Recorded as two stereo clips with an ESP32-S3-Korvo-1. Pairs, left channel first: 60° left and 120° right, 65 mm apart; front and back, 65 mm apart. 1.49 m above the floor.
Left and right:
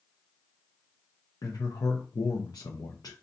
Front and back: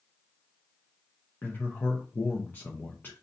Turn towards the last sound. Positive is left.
turn(degrees=60)